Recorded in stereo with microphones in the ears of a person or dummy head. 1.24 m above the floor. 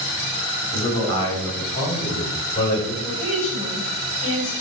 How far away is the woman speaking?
About 7.5 m.